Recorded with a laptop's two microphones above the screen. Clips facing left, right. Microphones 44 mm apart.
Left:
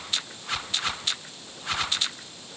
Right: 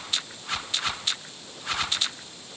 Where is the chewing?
No chewing in this recording.